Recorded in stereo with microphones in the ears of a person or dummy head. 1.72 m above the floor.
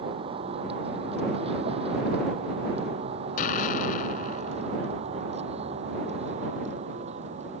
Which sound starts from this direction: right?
A vehicle, at 0.0 s.